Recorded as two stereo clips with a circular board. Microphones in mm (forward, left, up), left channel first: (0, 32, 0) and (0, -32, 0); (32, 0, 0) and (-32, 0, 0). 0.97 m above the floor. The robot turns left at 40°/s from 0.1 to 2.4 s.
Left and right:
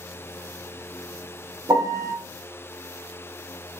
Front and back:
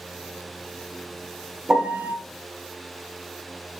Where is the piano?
100° right, 0.5 m; by 2.1 s 120° right, 0.5 m.